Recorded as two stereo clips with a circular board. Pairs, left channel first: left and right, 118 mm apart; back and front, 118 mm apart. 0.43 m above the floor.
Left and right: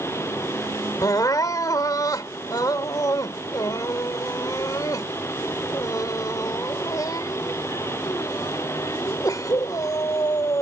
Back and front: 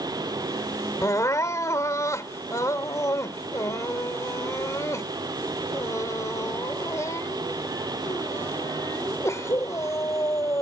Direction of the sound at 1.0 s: 130° left.